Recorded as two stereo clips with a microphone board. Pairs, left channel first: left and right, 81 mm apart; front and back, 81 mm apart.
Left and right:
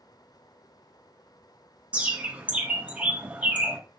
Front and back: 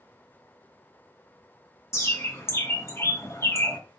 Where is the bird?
25° right, 1.1 m.